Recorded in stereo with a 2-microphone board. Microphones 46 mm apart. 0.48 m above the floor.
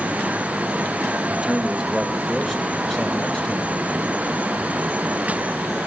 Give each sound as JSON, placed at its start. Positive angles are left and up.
{"t": 1.3, "sound": "a man speaking", "side_deg": -20, "distance_m": 2.0}